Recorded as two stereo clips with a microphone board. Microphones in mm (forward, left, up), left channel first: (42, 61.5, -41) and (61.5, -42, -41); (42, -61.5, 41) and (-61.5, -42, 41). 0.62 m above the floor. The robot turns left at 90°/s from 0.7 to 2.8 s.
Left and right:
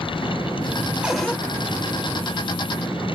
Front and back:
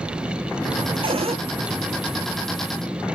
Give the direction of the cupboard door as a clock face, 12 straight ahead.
5 o'clock.